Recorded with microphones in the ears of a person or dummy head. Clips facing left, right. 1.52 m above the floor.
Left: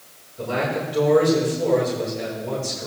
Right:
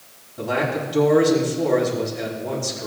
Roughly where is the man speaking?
Right.